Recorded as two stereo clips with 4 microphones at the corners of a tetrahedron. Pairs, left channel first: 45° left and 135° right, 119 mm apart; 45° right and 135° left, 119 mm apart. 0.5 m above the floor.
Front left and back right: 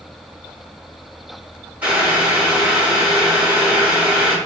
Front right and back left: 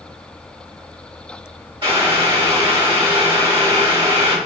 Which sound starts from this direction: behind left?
Boiling, at 1.8 s.